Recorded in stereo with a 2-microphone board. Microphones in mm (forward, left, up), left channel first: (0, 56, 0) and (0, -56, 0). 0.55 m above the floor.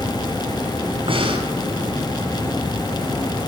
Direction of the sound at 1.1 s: 50° right (ahead or behind).